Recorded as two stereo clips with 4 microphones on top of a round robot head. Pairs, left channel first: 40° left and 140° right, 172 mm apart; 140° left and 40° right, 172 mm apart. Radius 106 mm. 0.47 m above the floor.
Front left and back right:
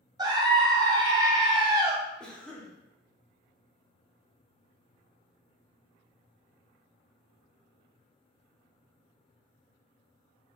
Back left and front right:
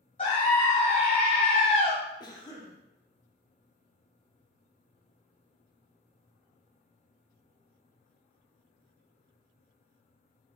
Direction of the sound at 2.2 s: 115° left.